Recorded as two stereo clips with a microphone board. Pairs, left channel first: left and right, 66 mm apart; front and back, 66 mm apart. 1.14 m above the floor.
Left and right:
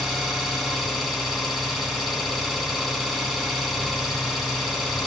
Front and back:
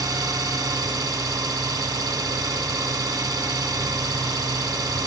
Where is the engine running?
175° left, 2 m.